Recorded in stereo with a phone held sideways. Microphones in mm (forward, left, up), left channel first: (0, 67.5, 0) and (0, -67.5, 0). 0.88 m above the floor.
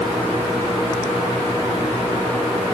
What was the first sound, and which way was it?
Only background noise.